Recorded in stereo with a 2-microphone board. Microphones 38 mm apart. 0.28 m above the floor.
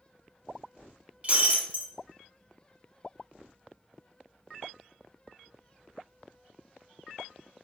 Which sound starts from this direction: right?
Breaking glass, at 1.2 s.